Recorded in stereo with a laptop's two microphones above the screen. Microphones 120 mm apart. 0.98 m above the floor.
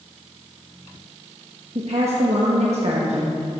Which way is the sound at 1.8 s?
65° right (ahead or behind).